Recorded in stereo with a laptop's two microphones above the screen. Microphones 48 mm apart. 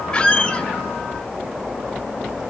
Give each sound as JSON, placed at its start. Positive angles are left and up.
{"t": 0.1, "sound": "a squeak", "side_deg": 25, "distance_m": 0.9}